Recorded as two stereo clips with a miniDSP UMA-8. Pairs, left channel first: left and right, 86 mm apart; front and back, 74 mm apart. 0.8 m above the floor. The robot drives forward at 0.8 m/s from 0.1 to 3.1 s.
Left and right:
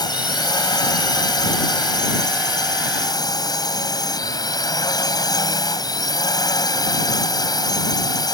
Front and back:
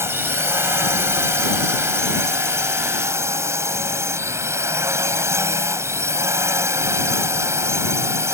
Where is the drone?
130° left.